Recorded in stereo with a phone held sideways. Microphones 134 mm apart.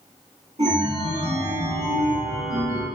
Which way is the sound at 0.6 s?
55° right (ahead or behind).